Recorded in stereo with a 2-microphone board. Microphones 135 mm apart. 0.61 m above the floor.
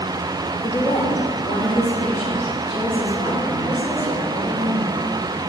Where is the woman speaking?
30° left (ahead or behind), 0.9 m; by 4.9 s 70° left (ahead or behind), 6 m.